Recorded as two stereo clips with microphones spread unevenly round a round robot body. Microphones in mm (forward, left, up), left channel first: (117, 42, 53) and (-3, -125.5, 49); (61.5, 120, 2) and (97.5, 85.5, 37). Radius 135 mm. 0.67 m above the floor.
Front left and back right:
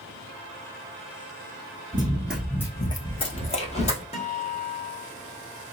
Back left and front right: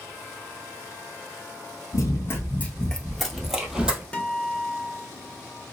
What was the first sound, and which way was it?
Running footsteps, 175° right.